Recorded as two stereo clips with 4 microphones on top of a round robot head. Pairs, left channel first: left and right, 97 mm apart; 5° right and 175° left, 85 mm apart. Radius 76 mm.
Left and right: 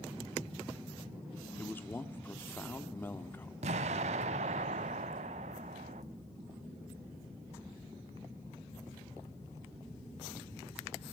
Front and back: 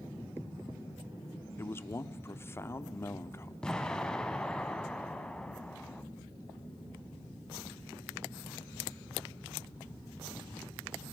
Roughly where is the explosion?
Right.